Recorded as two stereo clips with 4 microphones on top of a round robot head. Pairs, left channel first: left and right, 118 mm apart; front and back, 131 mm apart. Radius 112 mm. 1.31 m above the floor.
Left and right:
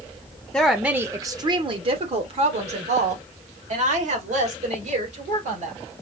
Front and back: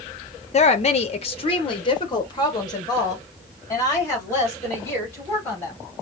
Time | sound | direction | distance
0.5 | a woman speaking | 5° left | 0.7 m